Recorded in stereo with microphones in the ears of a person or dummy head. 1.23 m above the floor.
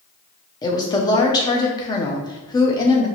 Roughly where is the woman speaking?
Left.